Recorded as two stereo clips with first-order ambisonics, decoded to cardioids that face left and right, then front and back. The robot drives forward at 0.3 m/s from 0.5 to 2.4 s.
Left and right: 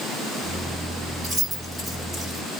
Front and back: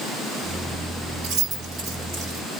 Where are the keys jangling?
160° right, 1.5 m; by 2.4 s 165° right, 1.9 m.